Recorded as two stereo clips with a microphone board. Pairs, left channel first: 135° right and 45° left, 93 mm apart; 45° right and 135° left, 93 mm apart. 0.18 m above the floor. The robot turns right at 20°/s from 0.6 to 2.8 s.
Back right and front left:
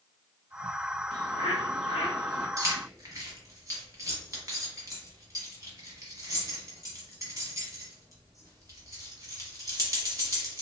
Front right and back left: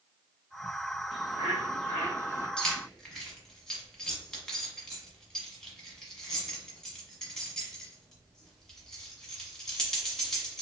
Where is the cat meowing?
No cat meowing in this recording.